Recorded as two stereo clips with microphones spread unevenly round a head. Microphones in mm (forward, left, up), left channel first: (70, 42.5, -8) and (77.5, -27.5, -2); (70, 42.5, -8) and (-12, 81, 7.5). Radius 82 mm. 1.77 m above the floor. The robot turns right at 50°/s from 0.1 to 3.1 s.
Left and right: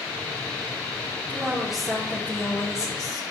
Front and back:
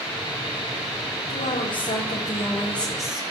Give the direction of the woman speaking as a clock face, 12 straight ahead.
1 o'clock.